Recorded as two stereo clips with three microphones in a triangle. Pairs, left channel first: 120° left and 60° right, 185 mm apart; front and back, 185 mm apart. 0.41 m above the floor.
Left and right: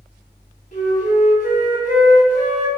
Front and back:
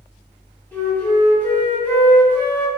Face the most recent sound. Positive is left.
turn(degrees=80)